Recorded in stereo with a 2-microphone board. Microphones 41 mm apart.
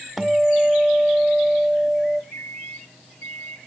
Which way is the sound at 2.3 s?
75° left (ahead or behind).